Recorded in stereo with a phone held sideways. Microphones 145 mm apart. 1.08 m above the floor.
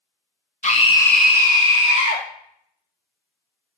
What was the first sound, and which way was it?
A scream, 50° left (ahead or behind).